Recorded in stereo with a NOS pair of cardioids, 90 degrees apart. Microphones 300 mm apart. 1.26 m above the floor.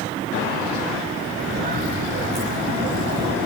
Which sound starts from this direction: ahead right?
Footsteps, at 1.4 s.